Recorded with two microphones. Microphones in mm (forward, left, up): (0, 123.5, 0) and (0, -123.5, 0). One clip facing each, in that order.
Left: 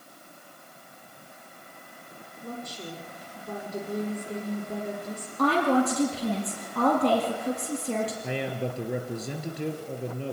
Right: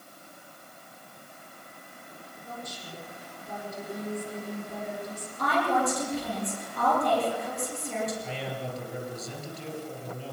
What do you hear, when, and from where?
2.4 s a woman speaking: 70° left (ahead or behind), 7 m
5.4 s a woman speaking: 75° left (ahead or behind), 7.5 m
8.2 s a man speaking: 70° left (ahead or behind), 3.5 m